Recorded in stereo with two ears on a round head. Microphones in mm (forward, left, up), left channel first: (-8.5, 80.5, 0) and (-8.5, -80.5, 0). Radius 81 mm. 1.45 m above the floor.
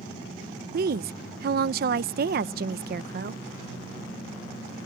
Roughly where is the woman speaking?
Right.